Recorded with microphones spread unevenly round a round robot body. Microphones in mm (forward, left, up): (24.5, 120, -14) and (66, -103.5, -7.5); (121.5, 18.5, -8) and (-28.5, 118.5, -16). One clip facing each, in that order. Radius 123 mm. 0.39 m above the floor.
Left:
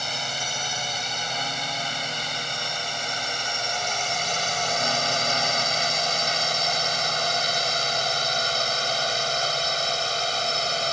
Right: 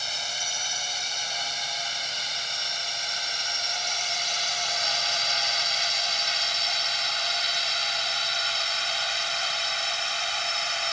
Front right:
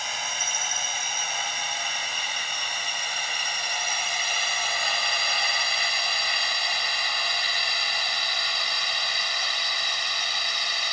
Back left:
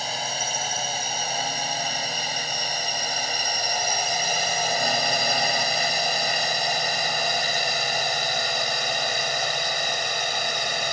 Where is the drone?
100° left; by 10.9 s 135° left.